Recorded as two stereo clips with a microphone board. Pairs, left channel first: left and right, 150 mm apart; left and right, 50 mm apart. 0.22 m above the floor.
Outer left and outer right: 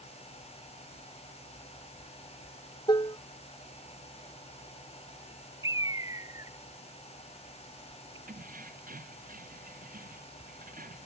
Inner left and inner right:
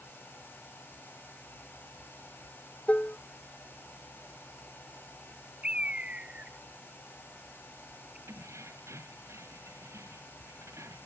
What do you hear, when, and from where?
2.9 s dishes clattering: 30° left (ahead or behind)
5.6 s a bird: 25° right (ahead or behind)
8.3 s keys jangling: 85° right